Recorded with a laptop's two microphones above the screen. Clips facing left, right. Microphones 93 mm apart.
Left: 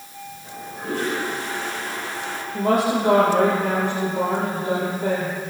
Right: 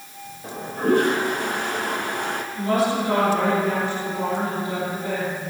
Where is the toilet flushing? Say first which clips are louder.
Right 10 dB; 60° right (ahead or behind), 1.3 m.